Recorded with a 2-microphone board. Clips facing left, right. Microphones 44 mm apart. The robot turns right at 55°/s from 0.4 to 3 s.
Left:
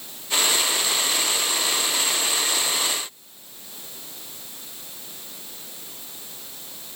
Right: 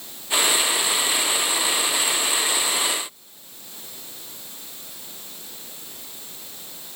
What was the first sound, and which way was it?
Only background noise.